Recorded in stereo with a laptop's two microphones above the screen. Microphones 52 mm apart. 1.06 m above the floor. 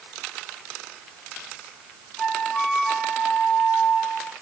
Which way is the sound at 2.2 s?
15° left (ahead or behind).